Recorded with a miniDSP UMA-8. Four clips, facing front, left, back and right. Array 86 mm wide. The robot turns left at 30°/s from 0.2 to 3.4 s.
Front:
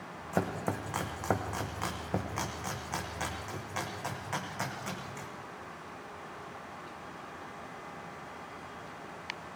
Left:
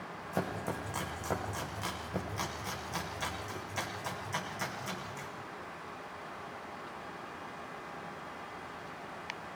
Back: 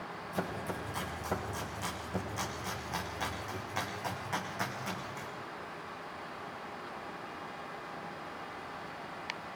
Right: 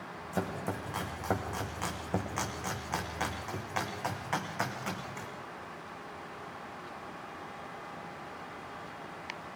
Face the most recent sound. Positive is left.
turn(degrees=-85)